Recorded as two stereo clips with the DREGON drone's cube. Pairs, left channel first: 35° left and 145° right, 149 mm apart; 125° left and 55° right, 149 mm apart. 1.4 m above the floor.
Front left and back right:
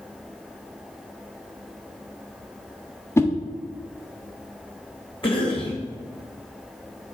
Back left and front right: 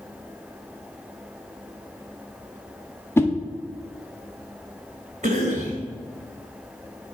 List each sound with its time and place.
3.2 s a whoosh: 75° left, 0.6 m
5.2 s a cough: 20° right, 1.4 m